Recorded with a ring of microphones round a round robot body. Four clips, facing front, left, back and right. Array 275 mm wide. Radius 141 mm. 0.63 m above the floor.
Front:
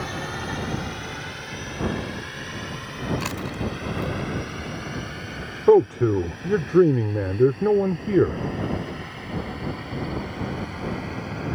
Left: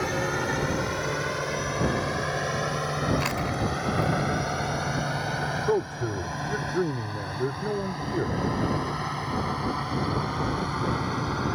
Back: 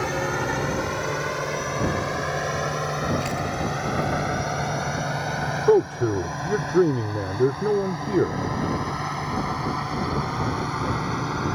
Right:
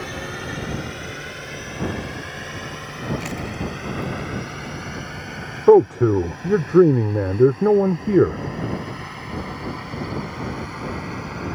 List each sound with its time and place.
0.0 s a drone: 155° left
3.2 s chewing: 50° left
5.7 s a man speaking: 80° right